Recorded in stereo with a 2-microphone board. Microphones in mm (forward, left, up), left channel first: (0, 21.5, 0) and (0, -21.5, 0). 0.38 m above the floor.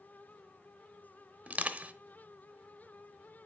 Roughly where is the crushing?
Right.